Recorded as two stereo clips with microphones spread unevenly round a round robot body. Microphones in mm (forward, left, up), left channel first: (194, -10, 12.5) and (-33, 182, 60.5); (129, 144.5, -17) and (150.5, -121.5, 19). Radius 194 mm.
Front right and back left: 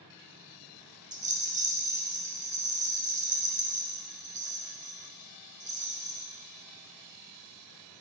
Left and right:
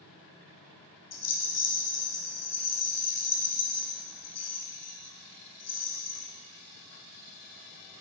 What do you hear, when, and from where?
1.1 s a rattle: 70° left, 1.2 m